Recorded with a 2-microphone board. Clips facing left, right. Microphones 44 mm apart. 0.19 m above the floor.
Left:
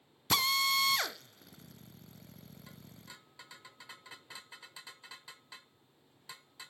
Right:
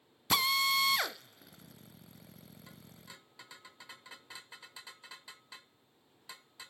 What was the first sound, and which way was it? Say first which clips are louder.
A drill: right 1 dB; 5° right (ahead or behind).